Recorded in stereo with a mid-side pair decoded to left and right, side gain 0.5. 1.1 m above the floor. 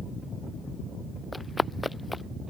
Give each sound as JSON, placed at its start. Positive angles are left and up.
{"t": 1.3, "sound": "running footsteps", "azimuth_deg": 15}